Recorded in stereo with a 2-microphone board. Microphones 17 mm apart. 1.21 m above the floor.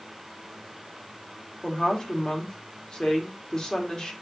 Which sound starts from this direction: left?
A woman speaking, at 1.6 s.